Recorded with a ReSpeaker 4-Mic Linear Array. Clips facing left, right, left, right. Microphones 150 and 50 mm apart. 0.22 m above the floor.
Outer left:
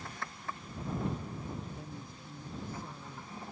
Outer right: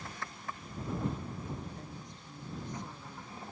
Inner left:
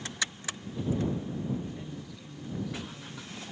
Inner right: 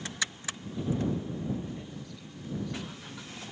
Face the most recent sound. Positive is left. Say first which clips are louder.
# outer left 1 dB, inner left 1 dB
turn(degrees=5)  # may be behind; listen again after turning